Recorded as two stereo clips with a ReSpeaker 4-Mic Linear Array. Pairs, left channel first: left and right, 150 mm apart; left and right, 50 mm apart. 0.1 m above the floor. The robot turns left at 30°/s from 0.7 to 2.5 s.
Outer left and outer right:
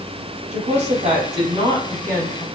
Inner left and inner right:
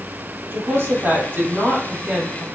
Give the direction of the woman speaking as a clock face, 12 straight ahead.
4 o'clock.